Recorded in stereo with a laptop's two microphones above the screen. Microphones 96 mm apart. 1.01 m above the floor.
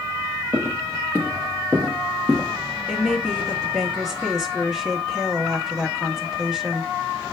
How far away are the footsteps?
About 1.3 m.